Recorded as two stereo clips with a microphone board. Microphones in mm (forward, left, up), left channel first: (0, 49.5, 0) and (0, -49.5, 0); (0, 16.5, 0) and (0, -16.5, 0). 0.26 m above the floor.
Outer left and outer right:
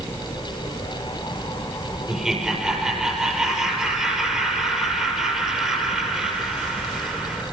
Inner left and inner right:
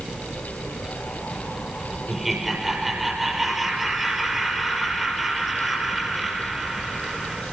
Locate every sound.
2.1 s laughter: 5° right (ahead or behind), 5 m